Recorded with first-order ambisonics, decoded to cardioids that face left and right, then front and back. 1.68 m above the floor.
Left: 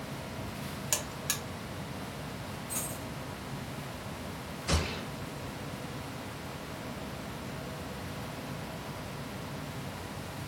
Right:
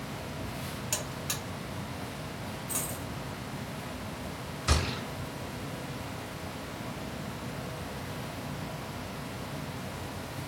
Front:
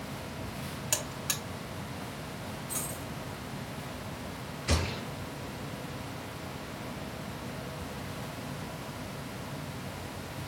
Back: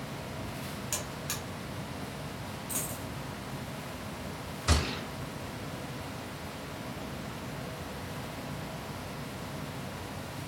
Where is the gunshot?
135° right, 2.5 m.